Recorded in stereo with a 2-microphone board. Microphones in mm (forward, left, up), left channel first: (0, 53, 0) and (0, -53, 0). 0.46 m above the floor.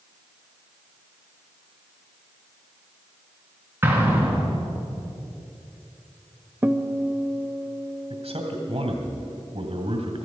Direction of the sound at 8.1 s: 70° right (ahead or behind).